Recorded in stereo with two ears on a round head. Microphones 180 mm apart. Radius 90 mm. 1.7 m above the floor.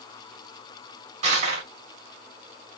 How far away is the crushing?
About 1.6 m.